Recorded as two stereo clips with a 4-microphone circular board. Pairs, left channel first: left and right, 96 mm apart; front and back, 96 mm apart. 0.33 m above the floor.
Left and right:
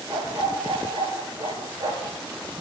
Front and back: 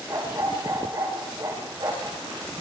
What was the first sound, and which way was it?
A dog barking, 120° right.